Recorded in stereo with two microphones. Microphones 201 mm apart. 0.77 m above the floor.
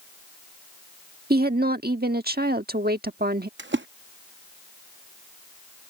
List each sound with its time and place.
1.3 s a woman speaking: 55° right (ahead or behind)
3.6 s a splash: 80° right